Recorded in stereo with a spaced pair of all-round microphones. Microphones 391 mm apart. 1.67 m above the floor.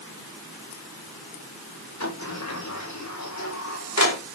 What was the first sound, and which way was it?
A sliding door, 45° left (ahead or behind).